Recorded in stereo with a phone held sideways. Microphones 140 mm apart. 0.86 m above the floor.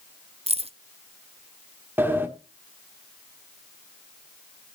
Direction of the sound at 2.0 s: 15° right (ahead or behind).